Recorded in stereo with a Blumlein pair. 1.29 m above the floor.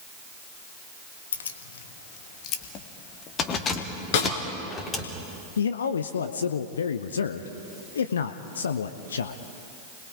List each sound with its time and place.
1.3 s keys jangling: 70° left, 1.2 m; by 5.1 s 15° left, 3 m
4.1 s a snare drum: 50° left, 3.5 m
5.6 s a man speaking: 65° left, 0.8 m